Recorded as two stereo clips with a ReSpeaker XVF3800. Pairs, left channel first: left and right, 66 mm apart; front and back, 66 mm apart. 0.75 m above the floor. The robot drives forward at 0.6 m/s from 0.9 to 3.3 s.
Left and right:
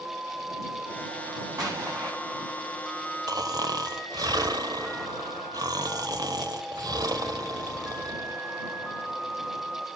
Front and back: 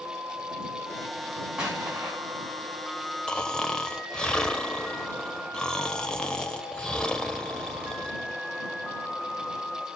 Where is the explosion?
100° right, 7 m; by 2.1 s 105° right, 7 m.